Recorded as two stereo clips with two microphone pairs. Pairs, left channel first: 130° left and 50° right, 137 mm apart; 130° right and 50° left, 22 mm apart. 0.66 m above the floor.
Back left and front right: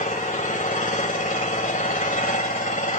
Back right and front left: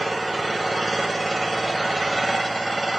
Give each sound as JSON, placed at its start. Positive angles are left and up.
{"t": 0.0, "sound": "an engine running", "azimuth_deg": 140, "distance_m": 2.5}